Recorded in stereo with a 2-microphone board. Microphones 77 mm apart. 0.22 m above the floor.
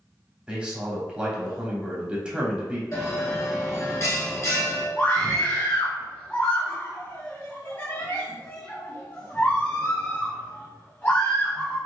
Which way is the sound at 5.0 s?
25° left (ahead or behind).